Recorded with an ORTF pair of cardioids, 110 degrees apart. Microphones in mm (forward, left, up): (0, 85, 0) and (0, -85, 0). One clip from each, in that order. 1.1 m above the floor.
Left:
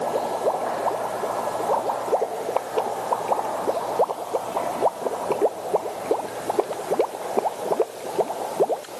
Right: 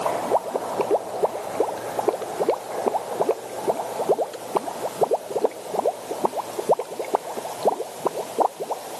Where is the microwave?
I don't hear a microwave.